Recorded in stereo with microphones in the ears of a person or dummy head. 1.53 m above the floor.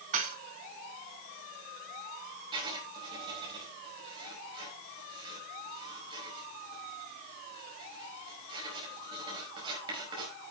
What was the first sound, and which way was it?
Dishes clattering, 45° right (ahead or behind).